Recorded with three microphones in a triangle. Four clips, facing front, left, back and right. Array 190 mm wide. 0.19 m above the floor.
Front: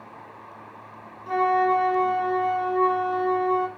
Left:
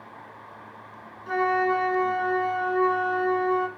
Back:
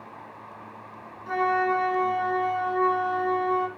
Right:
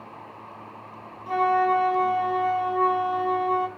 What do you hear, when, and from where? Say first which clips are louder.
1.3 s a flute: right 2 dB, front 3 dB; 60° right, 1.5 m